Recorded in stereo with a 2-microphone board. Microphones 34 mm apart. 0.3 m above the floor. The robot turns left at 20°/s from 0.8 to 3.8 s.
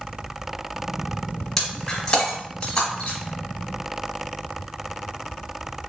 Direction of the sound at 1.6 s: 10° left (ahead or behind).